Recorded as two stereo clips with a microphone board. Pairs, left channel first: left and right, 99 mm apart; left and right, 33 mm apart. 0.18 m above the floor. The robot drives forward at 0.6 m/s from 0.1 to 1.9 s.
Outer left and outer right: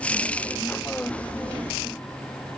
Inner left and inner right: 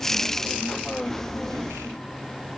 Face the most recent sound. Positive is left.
No sound to turn to.